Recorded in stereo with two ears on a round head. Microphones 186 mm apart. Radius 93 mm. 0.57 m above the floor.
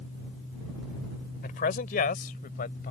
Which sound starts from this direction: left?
A man speaking, at 1.4 s.